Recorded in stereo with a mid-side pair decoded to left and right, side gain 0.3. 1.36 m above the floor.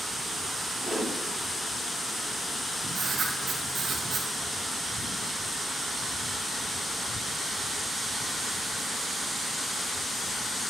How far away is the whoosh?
About 3.5 m.